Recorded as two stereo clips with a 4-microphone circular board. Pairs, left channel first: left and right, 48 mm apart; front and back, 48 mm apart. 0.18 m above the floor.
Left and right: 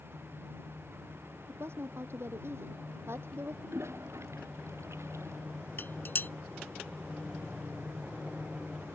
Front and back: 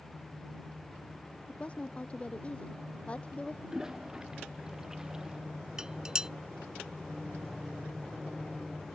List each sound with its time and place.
1.5 s a woman speaking: 65° right
3.6 s a toilet flushing: 105° right
5.8 s dishes clattering: 110° left